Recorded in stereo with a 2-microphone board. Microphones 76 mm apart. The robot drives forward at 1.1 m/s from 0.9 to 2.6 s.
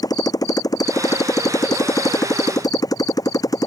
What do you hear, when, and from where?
0.0 s a motorcycle: 55° left (ahead or behind)